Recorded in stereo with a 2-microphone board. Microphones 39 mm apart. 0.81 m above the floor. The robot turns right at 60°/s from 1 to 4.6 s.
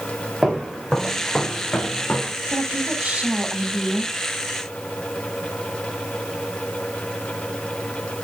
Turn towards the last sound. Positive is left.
turn(degrees=50)